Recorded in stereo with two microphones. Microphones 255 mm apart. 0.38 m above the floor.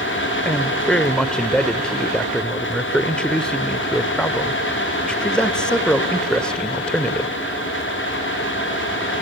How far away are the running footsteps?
I don't hear running footsteps.